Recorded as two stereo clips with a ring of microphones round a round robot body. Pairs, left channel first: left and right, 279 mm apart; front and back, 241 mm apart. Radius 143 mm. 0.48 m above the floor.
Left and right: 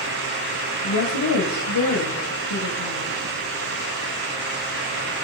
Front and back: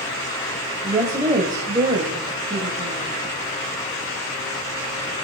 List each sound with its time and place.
0.8 s a woman speaking: 105° left, 2.5 m